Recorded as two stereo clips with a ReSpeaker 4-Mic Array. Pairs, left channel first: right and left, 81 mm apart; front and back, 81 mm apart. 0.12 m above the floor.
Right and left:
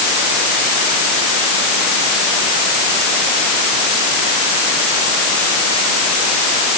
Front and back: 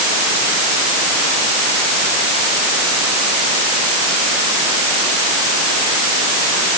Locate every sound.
Only background noise.